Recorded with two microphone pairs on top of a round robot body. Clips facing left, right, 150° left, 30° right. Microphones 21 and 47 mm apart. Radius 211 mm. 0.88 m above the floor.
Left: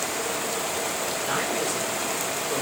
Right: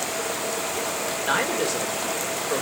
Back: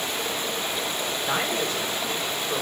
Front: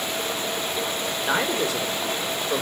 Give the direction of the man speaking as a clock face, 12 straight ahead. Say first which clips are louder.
Right 4 dB, front 3 dB; 1 o'clock.